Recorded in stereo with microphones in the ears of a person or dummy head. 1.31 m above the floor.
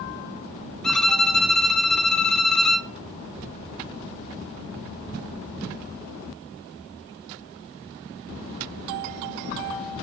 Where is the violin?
5° left (ahead or behind), 0.7 m.